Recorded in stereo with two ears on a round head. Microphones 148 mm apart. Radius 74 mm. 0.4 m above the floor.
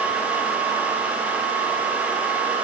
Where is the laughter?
I don't hear laughter.